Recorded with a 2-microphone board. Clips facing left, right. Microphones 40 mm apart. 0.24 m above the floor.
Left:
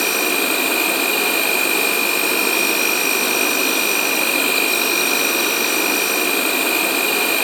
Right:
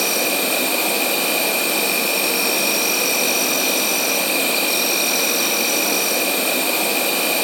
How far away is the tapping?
I don't hear tapping.